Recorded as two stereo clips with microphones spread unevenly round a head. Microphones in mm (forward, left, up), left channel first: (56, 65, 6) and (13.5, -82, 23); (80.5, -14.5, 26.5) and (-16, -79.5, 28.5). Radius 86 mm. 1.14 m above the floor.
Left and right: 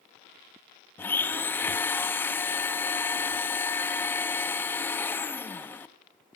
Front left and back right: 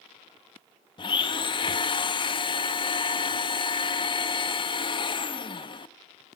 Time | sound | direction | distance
1.0 | a blender | 5° right | 0.6 m